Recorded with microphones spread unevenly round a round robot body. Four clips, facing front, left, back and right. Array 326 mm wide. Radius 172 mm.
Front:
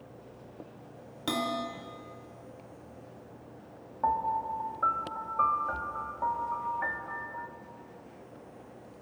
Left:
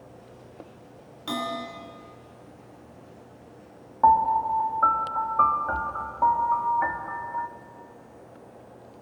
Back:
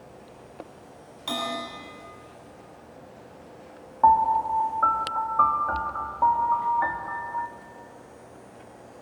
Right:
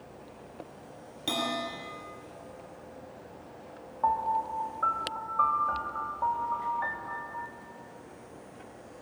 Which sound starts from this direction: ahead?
A bell, at 1.3 s.